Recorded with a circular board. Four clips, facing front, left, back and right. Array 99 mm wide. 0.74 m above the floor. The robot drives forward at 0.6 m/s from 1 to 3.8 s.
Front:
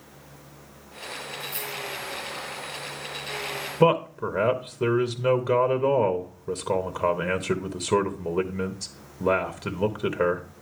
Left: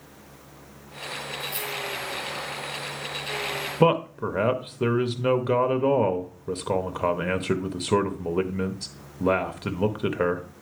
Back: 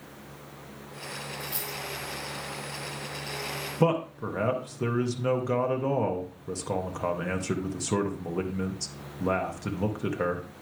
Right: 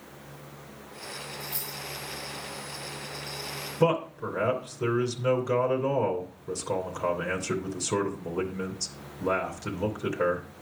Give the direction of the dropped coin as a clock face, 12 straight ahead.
6 o'clock.